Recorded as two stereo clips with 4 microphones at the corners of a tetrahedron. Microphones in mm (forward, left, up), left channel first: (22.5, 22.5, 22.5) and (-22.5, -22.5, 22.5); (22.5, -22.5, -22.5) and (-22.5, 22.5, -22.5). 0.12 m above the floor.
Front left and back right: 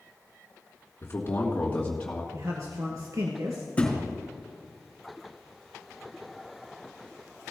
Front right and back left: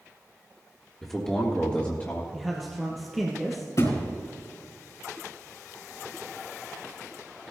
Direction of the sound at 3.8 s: 20° right.